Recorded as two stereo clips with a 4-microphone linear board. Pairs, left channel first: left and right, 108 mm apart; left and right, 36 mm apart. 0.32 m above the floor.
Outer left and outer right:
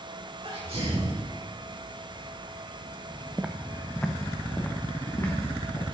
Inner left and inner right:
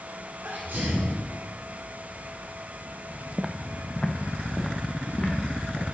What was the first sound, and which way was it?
A sneeze, 65° right (ahead or behind).